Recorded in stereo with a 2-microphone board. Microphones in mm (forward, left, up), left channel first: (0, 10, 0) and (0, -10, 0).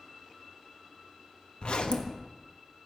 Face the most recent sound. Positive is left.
turn(degrees=65)  # may be behind; listen again after turning